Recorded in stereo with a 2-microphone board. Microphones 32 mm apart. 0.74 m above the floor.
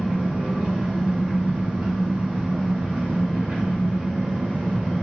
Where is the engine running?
55° right (ahead or behind), 1.3 m.